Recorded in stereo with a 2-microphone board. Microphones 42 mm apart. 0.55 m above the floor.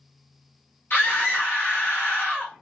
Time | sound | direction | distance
0.9 | a scream | 55° left (ahead or behind) | 1.4 m